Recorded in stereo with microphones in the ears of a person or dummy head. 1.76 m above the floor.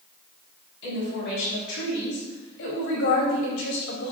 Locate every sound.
0.8 s a woman speaking: 70° left (ahead or behind), 5 m; by 4.1 s 75° left (ahead or behind), 3 m